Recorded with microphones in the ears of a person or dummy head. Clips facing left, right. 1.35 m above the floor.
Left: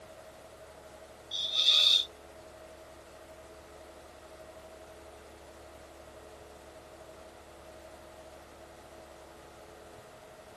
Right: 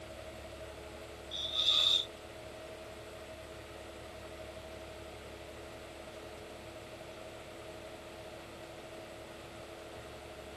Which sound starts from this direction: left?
A hiss, at 1.3 s.